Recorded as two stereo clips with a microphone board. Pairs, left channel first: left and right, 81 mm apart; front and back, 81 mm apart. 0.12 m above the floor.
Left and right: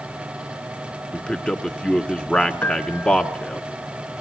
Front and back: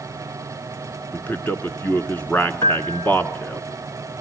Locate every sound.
1.1 s a man speaking: 30° left, 1.2 m
2.6 s a piano: 30° left, 1.4 m